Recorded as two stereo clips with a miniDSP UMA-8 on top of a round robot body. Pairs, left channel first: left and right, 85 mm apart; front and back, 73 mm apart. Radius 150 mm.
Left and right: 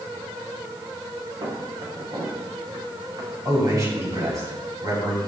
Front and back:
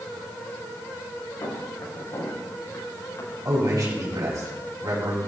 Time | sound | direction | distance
1.4 | footsteps | 45° right | 6.5 m
3.5 | a man speaking | 140° right | 7.5 m